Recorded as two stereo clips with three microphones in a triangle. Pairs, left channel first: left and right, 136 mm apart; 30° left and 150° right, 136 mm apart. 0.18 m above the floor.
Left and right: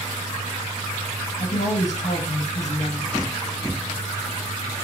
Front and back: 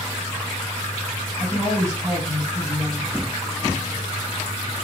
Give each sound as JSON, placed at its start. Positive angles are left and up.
{"t": 1.4, "sound": "a woman speaking", "azimuth_deg": 95, "distance_m": 1.9}